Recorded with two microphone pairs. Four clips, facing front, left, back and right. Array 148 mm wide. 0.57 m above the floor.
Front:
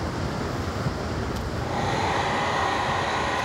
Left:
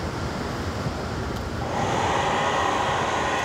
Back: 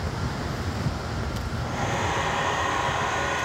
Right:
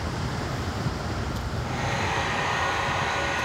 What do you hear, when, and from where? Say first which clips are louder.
1.6 s a hair dryer: left 6 dB, front 2 dB; 65° left, 5.5 m